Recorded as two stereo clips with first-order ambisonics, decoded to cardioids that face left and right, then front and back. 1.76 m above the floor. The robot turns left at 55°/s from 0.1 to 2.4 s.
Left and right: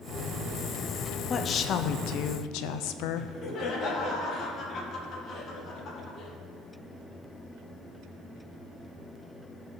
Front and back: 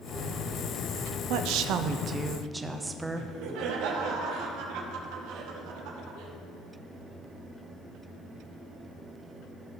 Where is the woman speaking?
160° left, 0.7 m; by 3.3 s 100° left, 0.7 m.